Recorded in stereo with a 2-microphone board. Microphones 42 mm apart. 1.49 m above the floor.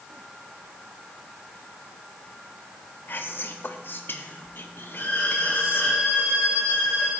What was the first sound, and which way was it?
Whispering, 55° left (ahead or behind).